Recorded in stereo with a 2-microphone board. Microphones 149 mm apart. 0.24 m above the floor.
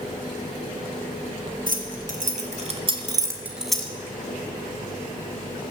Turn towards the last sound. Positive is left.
turn(degrees=10)  # may be behind; listen again after turning